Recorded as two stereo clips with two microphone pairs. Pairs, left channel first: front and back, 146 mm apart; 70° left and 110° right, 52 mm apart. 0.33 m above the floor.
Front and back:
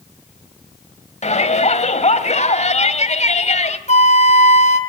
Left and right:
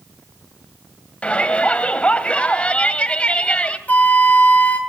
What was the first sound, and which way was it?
A shout, 5° left.